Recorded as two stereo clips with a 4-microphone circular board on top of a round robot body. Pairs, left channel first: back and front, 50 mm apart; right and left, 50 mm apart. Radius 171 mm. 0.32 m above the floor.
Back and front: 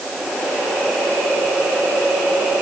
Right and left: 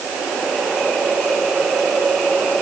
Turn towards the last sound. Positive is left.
No sound to turn to.